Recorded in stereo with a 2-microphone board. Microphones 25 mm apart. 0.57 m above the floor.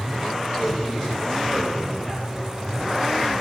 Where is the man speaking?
35° left (ahead or behind), 9.5 m; by 2.5 s 20° left (ahead or behind), 10 m.